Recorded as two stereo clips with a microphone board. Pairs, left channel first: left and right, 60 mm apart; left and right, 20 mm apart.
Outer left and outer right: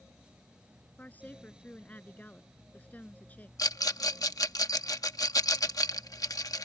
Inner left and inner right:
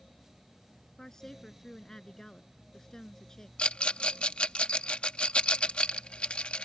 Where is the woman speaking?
25° left (ahead or behind).